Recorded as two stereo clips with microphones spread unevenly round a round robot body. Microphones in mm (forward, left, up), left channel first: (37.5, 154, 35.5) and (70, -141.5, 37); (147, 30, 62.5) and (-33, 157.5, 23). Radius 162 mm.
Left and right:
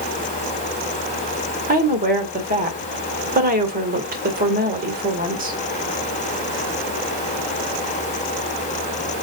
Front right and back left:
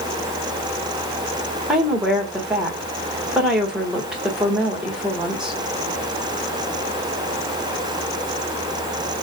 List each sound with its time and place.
1.7 s a woman speaking: 135° right, 1.8 m